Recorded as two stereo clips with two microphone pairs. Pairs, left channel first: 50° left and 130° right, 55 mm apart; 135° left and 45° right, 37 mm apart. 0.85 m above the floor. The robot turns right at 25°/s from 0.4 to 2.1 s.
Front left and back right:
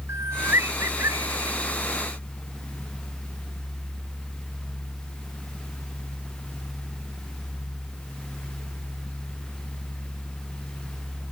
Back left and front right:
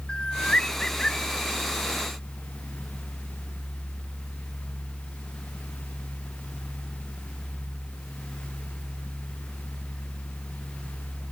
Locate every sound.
0.1 s a bird: 160° right; by 1.6 s 135° right